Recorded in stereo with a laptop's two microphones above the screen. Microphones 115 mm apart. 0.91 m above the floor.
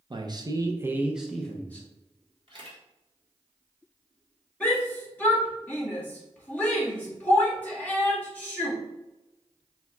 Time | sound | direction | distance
0.1 | a man speaking | 40° right (ahead or behind) | 0.8 m
2.5 | a camera shutter | 45° right (ahead or behind) | 2 m
4.6 | a shout | 15° left (ahead or behind) | 1.5 m